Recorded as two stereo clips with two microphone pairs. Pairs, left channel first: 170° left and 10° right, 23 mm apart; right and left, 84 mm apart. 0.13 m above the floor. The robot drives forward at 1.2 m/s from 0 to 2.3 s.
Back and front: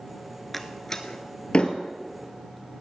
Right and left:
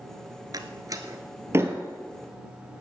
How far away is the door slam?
About 1.1 m.